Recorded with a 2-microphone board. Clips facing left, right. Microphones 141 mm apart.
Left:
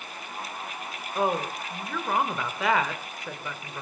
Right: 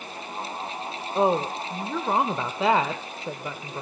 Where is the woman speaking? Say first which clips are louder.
Right 4 dB; 30° right (ahead or behind), 1.2 m.